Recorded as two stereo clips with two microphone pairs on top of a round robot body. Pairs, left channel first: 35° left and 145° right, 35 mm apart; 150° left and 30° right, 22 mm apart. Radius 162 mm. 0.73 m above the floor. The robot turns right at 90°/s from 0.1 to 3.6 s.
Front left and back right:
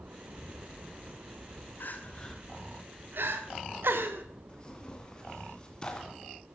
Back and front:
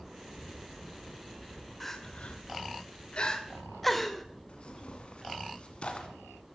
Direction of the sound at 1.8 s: 65° left.